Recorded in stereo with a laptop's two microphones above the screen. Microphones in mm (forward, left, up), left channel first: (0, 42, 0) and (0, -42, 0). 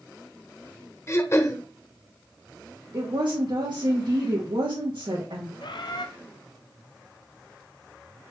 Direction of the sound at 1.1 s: 35° left (ahead or behind).